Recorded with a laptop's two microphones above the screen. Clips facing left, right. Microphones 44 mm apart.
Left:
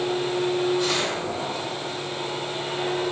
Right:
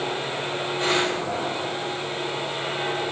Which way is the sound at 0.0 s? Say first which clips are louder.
Left 3 dB; 25° right (ahead or behind).